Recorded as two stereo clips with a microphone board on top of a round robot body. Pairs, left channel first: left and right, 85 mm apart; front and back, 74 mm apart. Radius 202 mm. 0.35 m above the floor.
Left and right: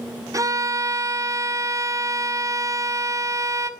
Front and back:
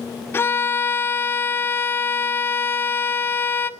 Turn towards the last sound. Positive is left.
turn(degrees=-50)